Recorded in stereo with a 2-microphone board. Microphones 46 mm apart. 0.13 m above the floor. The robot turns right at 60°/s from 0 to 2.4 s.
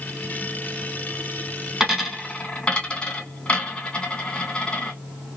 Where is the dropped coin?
10° right (ahead or behind), 1.4 m; by 4.9 s 25° left (ahead or behind), 1.4 m.